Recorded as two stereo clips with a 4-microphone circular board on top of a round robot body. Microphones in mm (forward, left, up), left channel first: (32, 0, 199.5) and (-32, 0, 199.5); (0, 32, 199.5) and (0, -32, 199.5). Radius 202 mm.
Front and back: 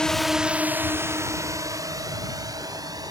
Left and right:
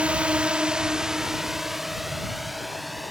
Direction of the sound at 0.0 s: 55° right.